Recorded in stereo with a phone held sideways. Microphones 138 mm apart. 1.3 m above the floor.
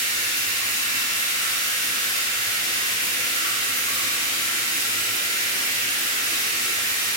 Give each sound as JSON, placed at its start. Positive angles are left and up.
{"t": 0.0, "sound": "running water", "side_deg": 25, "distance_m": 1.7}